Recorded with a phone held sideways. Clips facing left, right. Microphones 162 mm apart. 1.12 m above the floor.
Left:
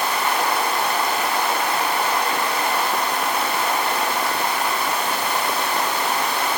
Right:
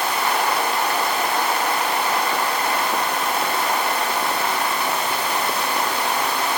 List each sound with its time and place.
Only background noise.